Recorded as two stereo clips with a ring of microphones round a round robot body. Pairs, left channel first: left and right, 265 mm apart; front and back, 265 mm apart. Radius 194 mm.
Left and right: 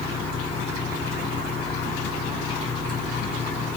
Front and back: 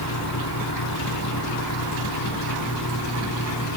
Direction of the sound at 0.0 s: 5° left.